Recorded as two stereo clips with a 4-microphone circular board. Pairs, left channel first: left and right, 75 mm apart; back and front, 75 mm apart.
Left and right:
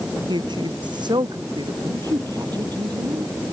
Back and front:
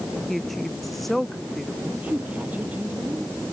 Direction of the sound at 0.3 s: 90° right.